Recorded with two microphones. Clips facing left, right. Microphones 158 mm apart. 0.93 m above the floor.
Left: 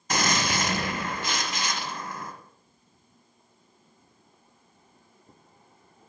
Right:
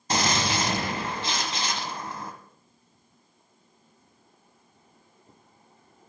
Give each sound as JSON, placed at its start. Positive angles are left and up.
{"t": 0.1, "sound": "a gunshot", "side_deg": -30, "distance_m": 1.2}